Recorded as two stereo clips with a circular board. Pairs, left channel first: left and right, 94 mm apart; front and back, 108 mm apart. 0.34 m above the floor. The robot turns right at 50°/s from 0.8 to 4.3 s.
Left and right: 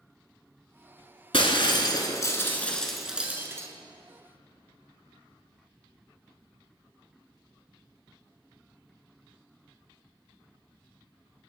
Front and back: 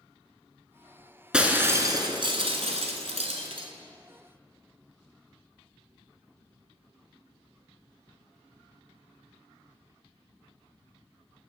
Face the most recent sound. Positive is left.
turn(degrees=-115)